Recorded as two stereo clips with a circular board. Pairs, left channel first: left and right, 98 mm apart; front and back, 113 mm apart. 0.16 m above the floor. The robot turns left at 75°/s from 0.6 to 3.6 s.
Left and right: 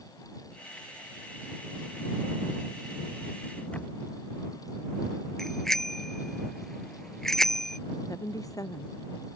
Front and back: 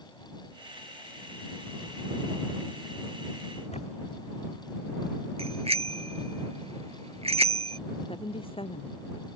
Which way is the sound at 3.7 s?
15° left.